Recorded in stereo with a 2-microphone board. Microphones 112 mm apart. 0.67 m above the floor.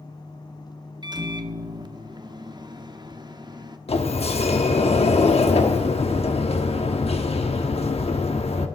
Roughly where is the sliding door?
Left.